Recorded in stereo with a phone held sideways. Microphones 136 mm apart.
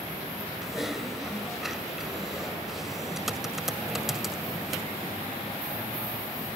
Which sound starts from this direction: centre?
Typing on a keyboard, at 0.6 s.